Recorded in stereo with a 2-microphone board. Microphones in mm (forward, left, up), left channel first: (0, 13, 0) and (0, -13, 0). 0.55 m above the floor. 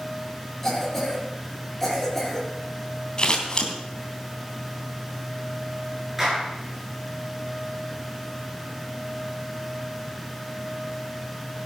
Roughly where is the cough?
Centre.